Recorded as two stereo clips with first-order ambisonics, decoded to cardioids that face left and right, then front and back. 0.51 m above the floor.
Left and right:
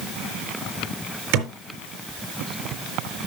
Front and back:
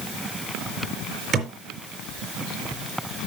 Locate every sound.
1.3 s a thud: 120° right, 4.5 m